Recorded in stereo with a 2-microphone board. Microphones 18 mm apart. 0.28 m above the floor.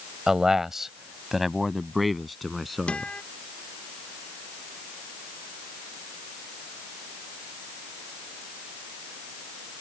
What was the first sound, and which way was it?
A man speaking, 30° right (ahead or behind).